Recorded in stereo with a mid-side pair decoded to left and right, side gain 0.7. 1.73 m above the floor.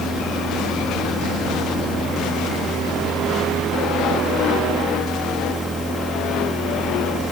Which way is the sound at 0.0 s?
20° right.